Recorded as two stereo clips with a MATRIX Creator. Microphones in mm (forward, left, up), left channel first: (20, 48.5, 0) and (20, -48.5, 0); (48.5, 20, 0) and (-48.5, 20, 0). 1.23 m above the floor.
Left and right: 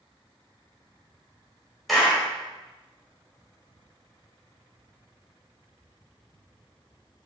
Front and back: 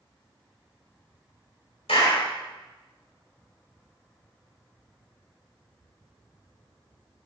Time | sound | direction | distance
1.9 | a clap | straight ahead | 5 m